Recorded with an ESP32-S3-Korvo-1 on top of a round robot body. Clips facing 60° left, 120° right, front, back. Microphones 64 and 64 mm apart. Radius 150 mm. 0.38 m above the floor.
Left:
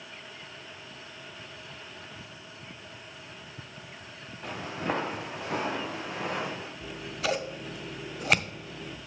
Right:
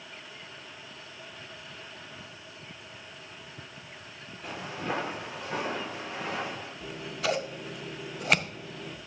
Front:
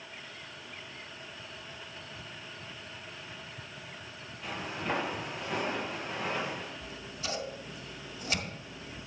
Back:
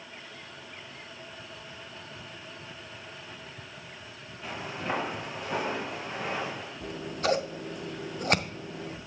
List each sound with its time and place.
4.4 s footsteps: 95° left, 2.5 m
6.8 s scissors: 150° left, 0.8 m